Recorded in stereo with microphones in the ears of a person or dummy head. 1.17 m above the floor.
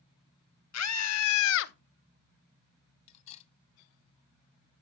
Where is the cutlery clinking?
35° left (ahead or behind), 0.7 m.